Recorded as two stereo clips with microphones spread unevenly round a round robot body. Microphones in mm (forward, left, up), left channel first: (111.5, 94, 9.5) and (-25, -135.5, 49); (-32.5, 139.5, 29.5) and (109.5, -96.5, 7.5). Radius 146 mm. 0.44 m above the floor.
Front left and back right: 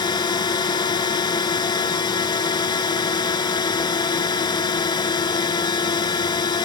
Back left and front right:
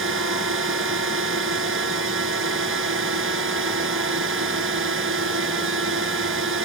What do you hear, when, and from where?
0.0 s a drone: 15° right